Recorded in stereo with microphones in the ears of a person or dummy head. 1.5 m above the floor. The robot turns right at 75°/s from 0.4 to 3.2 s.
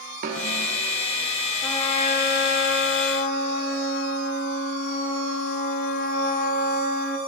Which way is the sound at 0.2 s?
45° right (ahead or behind).